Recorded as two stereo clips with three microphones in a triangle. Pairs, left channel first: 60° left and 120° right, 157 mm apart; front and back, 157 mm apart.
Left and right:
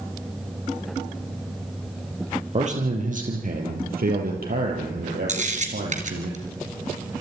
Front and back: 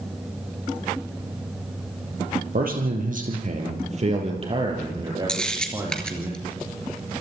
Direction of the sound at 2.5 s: 160° right.